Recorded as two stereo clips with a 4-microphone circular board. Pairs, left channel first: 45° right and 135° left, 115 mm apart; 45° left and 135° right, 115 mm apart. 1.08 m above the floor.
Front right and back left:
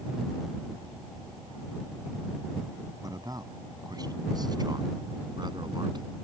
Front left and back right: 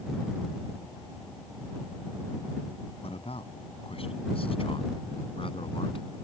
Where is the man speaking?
75° left; by 6.2 s 85° left.